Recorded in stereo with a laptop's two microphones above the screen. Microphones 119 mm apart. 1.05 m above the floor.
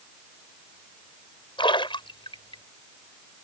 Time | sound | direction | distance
1.6 | a splash | 45° left (ahead or behind) | ?